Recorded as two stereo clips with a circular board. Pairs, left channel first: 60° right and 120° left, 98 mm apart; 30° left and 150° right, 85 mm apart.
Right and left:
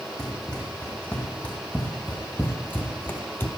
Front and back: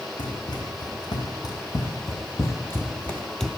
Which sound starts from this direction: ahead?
Running footsteps, at 0.2 s.